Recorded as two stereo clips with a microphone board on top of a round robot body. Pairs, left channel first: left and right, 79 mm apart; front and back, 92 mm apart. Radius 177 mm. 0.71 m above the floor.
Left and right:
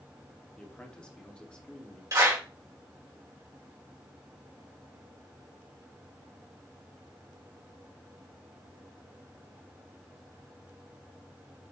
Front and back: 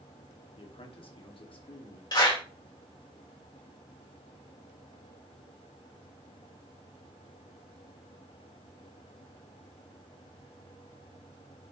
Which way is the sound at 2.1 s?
45° right.